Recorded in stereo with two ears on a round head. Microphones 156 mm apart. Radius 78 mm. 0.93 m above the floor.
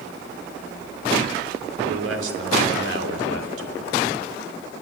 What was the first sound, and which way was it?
A man speaking, 75° right (ahead or behind).